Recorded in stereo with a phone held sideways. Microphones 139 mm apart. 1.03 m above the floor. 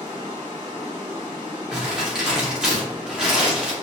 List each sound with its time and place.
0.0 s running water: 35° right (ahead or behind), 1.2 m
1.7 s crumpling: 5° right (ahead or behind), 0.8 m